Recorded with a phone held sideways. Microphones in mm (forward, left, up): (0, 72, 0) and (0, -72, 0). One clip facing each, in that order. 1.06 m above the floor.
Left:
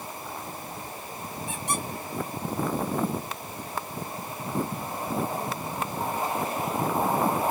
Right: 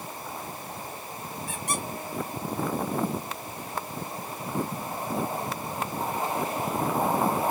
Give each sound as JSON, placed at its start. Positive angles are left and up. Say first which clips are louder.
{"t": 1.5, "sound": "a squeak", "louder": "left 1 dB", "side_deg": 20, "distance_m": 2.5}